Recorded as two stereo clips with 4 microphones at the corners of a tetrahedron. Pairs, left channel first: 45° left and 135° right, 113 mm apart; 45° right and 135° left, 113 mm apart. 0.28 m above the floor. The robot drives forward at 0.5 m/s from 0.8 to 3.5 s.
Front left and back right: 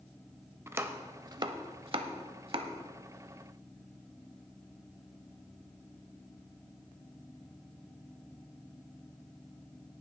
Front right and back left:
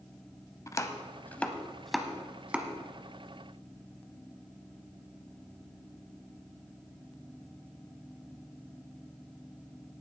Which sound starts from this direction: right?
Chopping, at 0.7 s.